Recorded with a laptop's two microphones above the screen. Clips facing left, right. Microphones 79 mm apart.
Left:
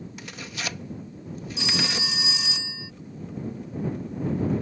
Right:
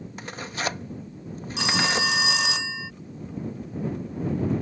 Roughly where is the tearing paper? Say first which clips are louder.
Right 6 dB; right.